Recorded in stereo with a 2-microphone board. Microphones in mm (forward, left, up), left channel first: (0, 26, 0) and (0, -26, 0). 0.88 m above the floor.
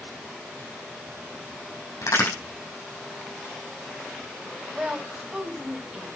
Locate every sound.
2.0 s a crack: 80° left, 7.5 m
4.7 s a woman speaking: 20° right (ahead or behind), 4 m